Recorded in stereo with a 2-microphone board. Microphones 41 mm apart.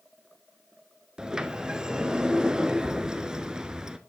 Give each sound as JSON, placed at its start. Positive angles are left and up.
{"t": 1.2, "sound": "a sliding door", "side_deg": -15, "distance_m": 0.5}